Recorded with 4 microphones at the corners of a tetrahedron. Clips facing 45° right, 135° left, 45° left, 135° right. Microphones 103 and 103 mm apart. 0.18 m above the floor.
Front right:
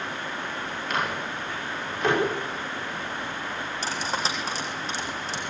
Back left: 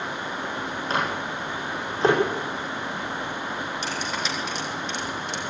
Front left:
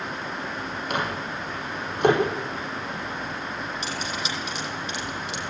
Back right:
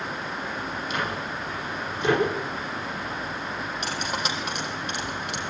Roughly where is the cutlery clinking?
Right.